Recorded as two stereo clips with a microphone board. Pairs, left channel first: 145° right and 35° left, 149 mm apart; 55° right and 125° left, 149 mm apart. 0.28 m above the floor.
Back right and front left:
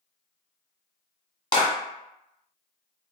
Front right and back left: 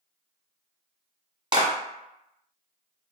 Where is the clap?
175° left, 1.4 m.